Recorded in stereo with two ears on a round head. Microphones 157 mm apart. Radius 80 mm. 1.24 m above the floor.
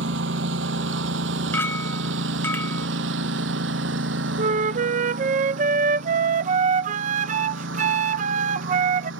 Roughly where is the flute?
Right.